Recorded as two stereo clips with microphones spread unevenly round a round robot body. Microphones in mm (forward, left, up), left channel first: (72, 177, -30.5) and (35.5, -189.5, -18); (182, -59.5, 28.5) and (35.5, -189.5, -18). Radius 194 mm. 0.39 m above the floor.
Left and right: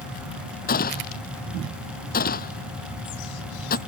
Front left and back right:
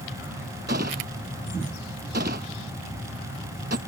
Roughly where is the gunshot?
Behind left.